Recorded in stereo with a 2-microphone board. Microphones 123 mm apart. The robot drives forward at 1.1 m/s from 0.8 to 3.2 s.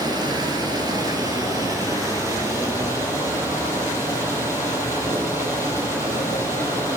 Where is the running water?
30° right (ahead or behind), 5 m; by 7.0 s 20° right (ahead or behind), 7.5 m.